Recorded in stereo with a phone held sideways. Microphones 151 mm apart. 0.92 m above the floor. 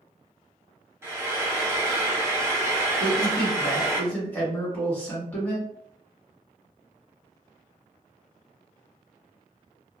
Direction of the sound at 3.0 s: 10° left (ahead or behind).